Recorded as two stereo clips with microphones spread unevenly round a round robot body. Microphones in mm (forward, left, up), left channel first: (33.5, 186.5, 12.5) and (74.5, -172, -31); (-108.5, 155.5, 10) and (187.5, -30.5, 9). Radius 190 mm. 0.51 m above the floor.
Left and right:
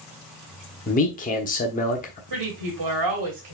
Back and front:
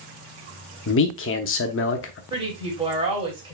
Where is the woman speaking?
110° right, 2.5 m.